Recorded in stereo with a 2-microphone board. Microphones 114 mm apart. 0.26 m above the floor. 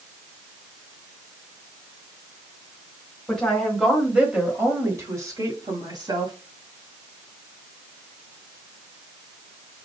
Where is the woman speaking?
5° left (ahead or behind), 1.5 m; by 6.3 s 40° right (ahead or behind), 1.9 m.